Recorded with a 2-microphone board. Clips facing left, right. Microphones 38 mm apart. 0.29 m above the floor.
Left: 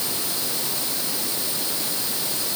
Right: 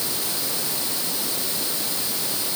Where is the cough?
No cough in this recording.